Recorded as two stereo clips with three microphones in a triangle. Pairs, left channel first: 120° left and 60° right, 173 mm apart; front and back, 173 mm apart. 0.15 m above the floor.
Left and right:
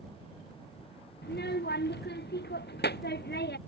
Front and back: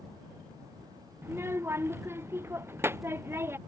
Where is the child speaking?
105° left.